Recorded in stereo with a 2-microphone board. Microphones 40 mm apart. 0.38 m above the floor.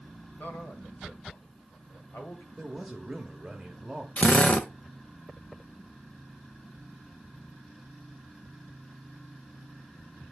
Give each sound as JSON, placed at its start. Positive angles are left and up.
{"t": 0.4, "sound": "a man speaking", "side_deg": 55, "distance_m": 1.6}
{"t": 2.6, "sound": "a man speaking", "side_deg": -5, "distance_m": 1.2}
{"t": 4.2, "sound": "a drill", "side_deg": 35, "distance_m": 0.8}